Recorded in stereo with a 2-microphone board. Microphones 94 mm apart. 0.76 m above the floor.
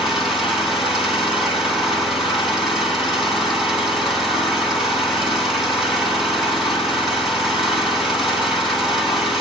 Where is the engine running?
5° right (ahead or behind), 6.5 m.